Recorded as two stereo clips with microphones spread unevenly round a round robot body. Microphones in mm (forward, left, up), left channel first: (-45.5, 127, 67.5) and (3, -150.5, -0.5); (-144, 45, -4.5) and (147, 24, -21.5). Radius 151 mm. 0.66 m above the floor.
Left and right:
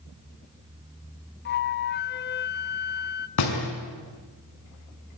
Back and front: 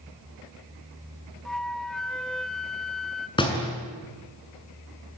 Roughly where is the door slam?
Left.